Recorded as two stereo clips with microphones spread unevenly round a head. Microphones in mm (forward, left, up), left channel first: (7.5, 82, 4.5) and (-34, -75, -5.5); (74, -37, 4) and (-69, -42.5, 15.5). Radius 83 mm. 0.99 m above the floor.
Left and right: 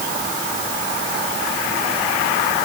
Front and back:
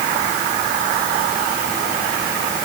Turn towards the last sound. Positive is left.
No sound to turn to.